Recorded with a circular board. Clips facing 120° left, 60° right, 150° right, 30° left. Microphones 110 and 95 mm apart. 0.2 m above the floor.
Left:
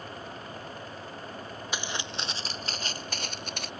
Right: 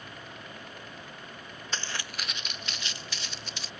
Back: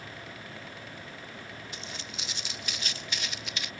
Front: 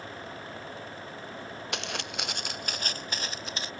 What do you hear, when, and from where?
1.7 s footsteps: 40° left; by 3.7 s 85° left